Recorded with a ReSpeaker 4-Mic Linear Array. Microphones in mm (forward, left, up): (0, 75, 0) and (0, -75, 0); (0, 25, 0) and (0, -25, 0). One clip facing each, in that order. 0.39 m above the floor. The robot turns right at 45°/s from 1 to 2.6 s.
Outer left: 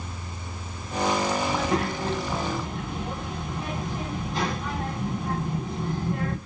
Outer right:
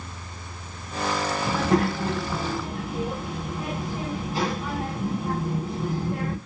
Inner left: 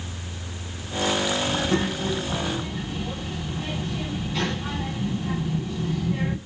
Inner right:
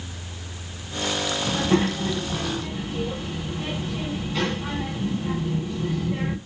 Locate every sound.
1.4 s a child speaking: 60° right, 1.4 m; by 6.4 s 5° right, 1.4 m